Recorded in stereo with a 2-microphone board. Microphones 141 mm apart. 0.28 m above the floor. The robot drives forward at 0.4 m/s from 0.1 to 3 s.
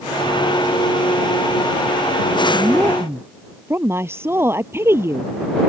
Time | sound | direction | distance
2.5 | a woman speaking | 15° right (ahead or behind) | ?